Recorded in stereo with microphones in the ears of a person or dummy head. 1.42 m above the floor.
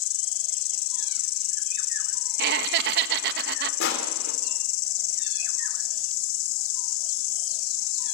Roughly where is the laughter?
Right.